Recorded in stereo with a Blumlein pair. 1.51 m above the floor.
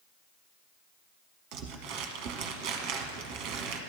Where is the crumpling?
35° right, 1.1 m.